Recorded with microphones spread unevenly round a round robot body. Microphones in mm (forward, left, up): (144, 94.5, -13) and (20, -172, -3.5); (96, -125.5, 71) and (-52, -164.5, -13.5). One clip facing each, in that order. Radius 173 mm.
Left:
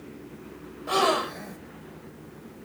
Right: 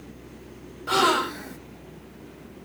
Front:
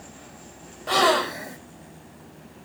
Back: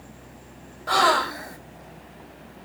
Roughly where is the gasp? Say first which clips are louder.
Right 1 dB, front 1 dB; ahead right.